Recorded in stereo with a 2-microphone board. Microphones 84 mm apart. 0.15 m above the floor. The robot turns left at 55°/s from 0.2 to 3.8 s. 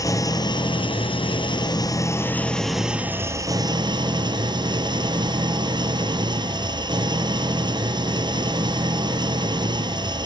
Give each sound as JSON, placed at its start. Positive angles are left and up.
{"t": 0.0, "sound": "an engine running", "azimuth_deg": 140, "distance_m": 1.0}